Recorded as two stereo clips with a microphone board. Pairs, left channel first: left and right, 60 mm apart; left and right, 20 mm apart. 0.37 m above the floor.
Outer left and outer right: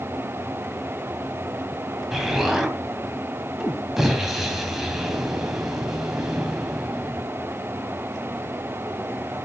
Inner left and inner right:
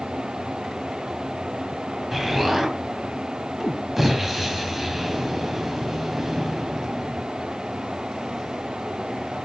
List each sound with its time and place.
2.1 s an explosion: 5° right (ahead or behind), 2.5 m